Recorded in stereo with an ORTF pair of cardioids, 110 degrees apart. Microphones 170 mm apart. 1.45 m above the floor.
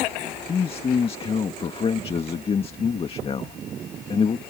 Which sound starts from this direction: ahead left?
A man speaking, at 0.5 s.